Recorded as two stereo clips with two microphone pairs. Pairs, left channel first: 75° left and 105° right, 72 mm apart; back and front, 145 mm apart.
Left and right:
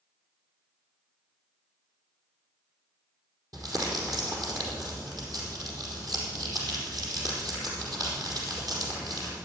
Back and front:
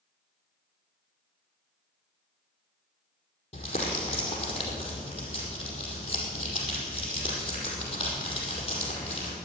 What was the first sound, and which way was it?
Crumpling, 135° right.